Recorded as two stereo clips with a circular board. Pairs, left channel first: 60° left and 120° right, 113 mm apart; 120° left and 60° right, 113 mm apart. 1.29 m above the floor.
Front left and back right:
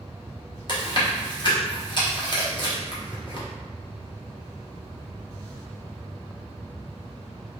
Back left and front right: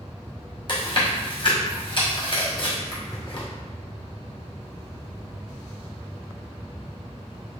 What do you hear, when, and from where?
0.7 s chewing: 95° left, 1.0 m